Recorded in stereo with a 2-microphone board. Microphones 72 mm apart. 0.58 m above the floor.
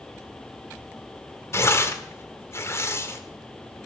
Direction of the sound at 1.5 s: 35° left (ahead or behind).